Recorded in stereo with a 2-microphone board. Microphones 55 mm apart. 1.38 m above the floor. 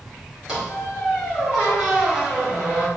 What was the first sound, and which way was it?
A squeak, 10° right (ahead or behind).